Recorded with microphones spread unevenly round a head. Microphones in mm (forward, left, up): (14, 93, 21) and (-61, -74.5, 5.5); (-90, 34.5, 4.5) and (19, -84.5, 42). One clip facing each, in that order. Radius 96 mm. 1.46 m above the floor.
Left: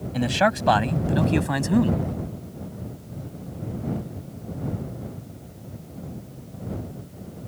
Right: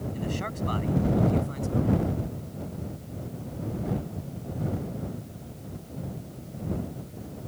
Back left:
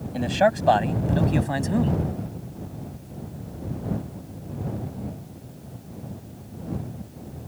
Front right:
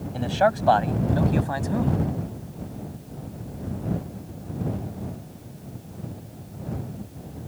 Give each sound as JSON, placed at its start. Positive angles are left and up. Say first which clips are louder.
{"t": 0.1, "sound": "a man speaking", "louder": "left 15 dB, back left 1 dB", "azimuth_deg": 55}